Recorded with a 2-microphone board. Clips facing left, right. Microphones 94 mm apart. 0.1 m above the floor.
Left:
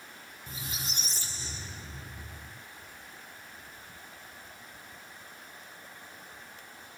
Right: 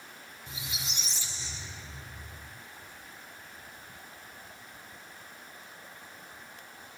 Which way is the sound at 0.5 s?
45° left (ahead or behind).